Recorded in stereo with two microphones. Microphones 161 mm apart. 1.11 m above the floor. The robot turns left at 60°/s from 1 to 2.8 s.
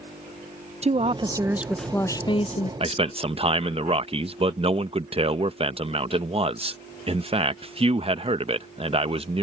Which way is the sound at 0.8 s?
135° right.